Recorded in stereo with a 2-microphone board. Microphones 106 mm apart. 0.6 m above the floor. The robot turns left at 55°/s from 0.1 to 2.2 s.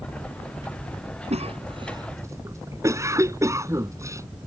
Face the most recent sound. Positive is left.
turn(degrees=-25)  # may be behind; listen again after turning